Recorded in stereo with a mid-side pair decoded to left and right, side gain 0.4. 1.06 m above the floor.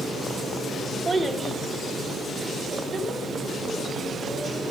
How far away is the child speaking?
About 0.9 m.